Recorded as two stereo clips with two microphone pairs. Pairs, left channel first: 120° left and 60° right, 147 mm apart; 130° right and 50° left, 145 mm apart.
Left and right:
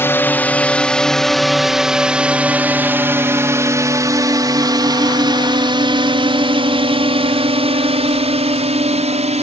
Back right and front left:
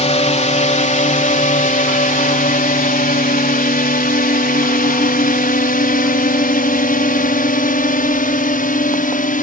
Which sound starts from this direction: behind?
A drone, at 0.0 s.